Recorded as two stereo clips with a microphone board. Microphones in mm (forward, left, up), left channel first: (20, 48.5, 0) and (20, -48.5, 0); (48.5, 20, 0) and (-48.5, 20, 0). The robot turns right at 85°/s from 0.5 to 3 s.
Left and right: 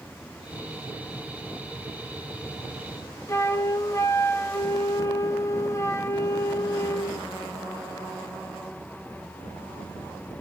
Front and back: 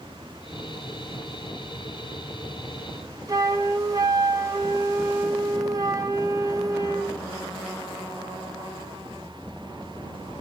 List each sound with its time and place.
3.3 s a flute: 140° left, 0.5 m